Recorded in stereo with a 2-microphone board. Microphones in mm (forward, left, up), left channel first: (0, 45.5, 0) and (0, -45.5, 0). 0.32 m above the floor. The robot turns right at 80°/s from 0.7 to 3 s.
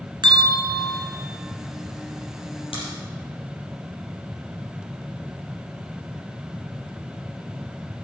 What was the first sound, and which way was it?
A bell, 65° right (ahead or behind).